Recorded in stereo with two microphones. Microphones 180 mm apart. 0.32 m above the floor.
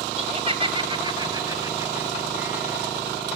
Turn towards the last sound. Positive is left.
turn(degrees=-10)  # may be behind; listen again after turning